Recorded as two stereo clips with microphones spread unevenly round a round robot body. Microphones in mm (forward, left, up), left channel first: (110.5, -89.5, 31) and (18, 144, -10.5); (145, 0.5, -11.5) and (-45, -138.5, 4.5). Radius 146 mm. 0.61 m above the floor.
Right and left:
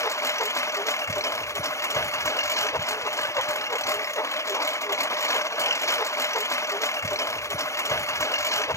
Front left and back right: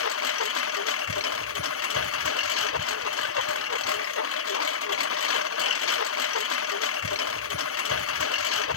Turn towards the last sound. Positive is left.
turn(degrees=10)